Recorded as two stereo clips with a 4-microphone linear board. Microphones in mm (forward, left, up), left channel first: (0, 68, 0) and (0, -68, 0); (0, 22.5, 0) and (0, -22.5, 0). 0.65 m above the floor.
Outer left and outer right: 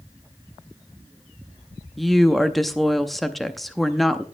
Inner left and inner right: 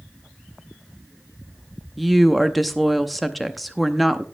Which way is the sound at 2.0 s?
Centre (ahead or behind).